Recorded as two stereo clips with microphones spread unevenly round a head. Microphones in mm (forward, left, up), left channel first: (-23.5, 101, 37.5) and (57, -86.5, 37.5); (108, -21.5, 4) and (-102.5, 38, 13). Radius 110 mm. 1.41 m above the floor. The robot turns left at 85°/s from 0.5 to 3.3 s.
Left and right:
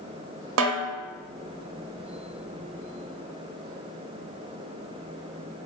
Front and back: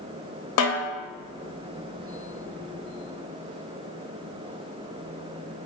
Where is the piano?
No piano in this recording.